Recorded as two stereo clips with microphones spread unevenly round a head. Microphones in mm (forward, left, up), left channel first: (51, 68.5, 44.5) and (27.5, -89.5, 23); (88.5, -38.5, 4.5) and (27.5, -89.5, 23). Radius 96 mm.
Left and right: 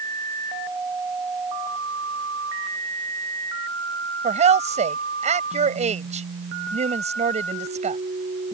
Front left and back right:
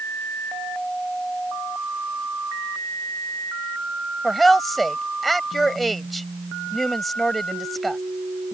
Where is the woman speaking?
50° right.